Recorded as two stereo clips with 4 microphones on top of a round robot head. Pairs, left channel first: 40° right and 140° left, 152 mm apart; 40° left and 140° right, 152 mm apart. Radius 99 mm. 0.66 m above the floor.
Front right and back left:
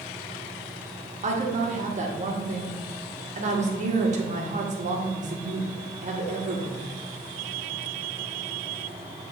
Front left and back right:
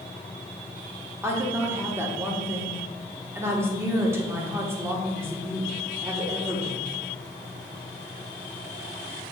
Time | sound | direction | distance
1.2 | a woman speaking | 150° left | 1.4 m